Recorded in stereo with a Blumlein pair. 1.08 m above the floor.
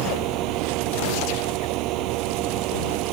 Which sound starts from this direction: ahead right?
A fan, at 0.0 s.